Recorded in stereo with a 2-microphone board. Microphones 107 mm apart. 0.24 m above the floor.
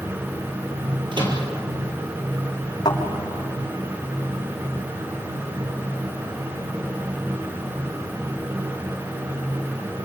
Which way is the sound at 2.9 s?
45° left (ahead or behind).